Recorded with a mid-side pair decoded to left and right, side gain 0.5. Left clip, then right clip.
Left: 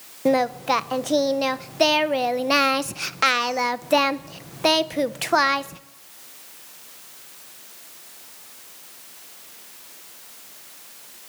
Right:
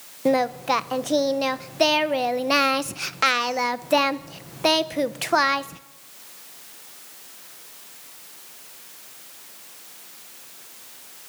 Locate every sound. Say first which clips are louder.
0.2 s singing: left 1 dB; 5° left, 0.8 m